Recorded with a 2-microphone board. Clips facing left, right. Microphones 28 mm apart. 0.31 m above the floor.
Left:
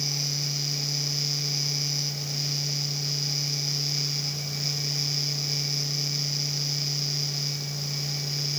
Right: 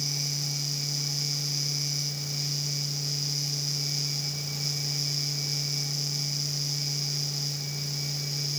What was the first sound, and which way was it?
Only background noise.